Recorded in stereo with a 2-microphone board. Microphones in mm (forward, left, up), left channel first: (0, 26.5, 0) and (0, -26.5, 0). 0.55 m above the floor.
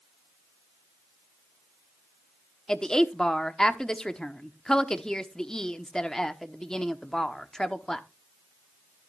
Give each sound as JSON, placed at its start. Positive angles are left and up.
{"t": 2.7, "sound": "a woman speaking", "side_deg": 10, "distance_m": 1.0}